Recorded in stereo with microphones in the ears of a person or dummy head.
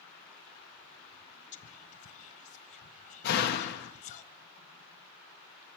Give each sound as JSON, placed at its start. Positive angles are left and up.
{"t": 1.5, "sound": "whispering", "side_deg": 40, "distance_m": 0.7}
{"t": 3.2, "sound": "a door slam", "side_deg": 60, "distance_m": 1.0}